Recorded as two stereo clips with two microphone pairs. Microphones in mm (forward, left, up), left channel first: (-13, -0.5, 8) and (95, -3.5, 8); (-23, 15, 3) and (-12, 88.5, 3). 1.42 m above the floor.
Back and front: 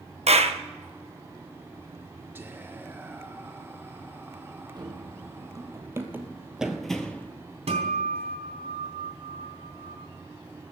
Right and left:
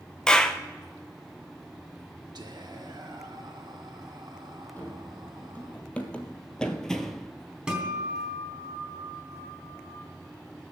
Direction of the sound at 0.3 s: 15° right.